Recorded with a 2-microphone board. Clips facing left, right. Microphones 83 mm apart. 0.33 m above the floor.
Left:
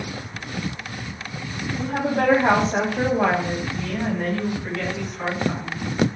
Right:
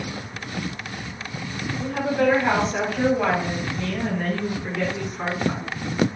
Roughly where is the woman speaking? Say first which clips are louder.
Even; left.